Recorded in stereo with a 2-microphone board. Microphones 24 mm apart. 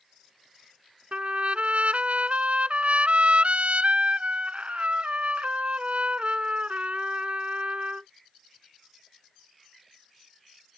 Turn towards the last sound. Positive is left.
turn(degrees=-65)  # may be behind; listen again after turning